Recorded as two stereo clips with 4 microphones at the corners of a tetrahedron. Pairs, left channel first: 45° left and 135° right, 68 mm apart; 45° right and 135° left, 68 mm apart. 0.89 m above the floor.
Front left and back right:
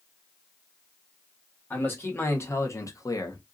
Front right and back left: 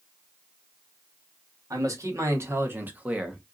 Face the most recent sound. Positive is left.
turn(degrees=55)